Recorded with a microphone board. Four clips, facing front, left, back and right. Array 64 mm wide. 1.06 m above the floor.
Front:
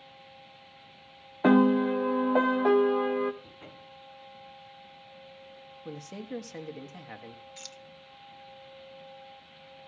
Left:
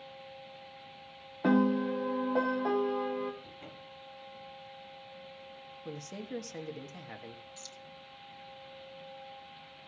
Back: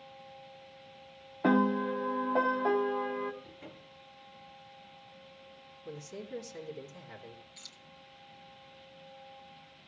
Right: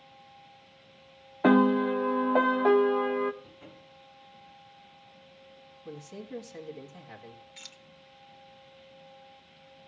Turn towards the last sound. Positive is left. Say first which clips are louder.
# left 2 dB, front 8 dB
turn(degrees=-65)